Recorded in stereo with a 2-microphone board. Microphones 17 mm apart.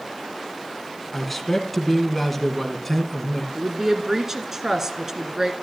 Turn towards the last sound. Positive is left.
turn(degrees=-25)  # may be behind; listen again after turning